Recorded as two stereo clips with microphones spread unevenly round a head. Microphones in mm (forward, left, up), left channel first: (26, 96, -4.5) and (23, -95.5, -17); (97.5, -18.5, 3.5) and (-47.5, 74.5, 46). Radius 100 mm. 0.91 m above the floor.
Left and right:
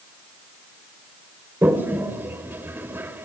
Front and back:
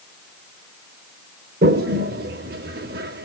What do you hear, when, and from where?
1.6 s a toilet flushing: 170° right, 1.5 m